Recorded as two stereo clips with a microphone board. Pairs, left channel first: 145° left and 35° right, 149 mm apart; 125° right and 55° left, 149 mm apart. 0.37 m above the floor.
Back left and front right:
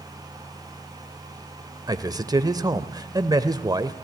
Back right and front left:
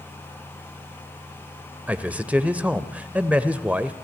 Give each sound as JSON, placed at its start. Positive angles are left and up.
{"t": 1.9, "sound": "a man speaking", "azimuth_deg": -15, "distance_m": 0.9}